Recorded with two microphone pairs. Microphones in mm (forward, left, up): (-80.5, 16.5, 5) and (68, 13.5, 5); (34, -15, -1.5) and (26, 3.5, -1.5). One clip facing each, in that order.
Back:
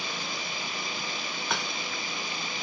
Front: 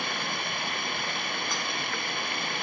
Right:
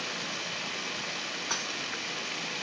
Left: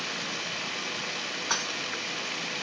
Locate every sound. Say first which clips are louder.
0.0 s running water: front 3 dB, left 2 dB; 30° left
1.5 s dishes clattering: back 1 dB, left 4 dB; 175° right